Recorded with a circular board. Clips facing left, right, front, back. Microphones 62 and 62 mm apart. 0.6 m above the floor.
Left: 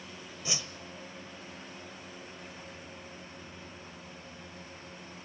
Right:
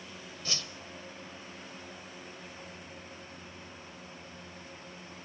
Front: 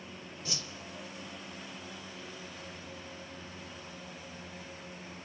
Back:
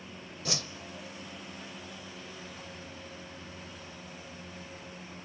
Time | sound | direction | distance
0.5 | a whoosh | 165° left | 0.6 m